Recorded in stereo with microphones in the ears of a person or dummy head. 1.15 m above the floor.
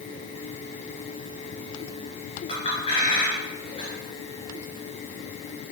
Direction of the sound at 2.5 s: 30° left (ahead or behind).